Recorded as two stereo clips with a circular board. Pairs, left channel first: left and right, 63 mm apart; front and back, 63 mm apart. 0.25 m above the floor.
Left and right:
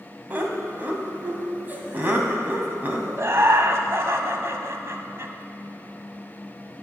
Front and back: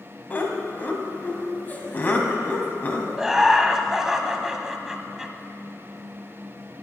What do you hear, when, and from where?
0.3 s laughter: 45° right, 2 m
3.2 s laughter: 100° right, 1.2 m